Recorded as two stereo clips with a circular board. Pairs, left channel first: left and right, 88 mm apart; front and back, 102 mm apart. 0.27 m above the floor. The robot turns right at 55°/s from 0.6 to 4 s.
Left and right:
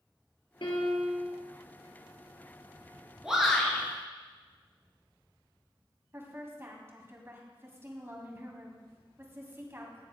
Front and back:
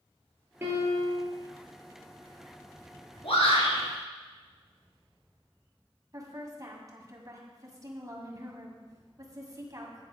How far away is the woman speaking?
About 2 m.